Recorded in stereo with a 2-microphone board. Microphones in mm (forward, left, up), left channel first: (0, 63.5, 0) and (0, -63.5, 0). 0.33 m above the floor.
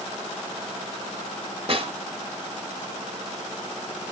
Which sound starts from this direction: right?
A snare drum, at 1.7 s.